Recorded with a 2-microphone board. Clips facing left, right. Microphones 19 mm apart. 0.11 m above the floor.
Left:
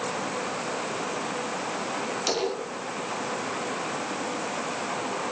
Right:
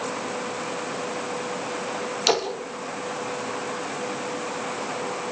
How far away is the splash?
About 9 m.